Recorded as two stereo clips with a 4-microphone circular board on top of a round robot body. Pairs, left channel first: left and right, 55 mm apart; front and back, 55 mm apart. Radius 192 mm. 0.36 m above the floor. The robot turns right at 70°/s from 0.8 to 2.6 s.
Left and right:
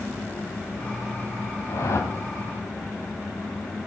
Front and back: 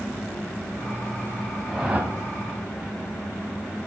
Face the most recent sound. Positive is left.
turn(degrees=160)